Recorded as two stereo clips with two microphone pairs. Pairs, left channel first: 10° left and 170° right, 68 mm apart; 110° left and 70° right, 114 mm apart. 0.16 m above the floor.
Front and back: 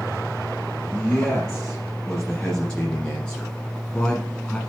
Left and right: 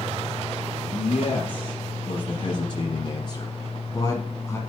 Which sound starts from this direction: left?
A man speaking, at 0.8 s.